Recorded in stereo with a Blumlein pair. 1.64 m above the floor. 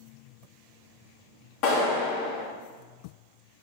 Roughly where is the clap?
Ahead left.